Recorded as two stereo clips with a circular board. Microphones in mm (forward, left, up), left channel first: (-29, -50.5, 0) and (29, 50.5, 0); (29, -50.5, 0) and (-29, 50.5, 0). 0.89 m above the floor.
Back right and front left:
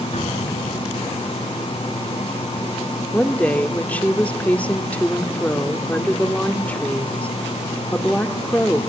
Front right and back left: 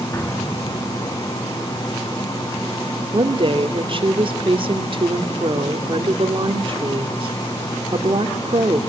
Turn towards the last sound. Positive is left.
turn(degrees=160)